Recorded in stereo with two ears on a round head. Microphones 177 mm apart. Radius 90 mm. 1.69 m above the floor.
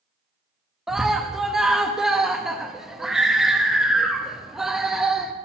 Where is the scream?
5° right (ahead or behind), 0.9 m.